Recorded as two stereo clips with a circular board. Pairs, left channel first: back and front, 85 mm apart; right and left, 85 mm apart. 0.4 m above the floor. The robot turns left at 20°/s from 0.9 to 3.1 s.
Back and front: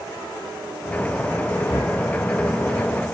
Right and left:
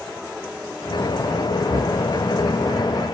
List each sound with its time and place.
1.7 s knocking: 135° left, 4 m; by 2.0 s 130° left, 4 m